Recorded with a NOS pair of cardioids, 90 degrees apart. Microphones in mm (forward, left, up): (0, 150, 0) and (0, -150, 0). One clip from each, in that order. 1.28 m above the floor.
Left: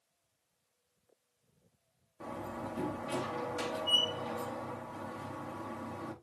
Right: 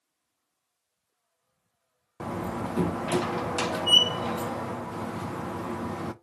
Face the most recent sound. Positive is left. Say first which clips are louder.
# right 8 dB
turn(degrees=-65)